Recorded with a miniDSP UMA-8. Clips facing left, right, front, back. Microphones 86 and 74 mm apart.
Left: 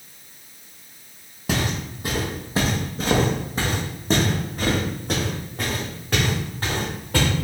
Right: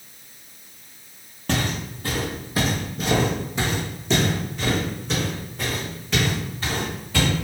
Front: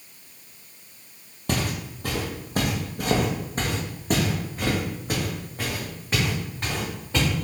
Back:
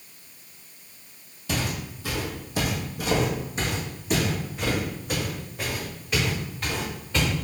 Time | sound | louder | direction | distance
1.5 | footsteps | even, front 2 dB | 10° left | 1.3 m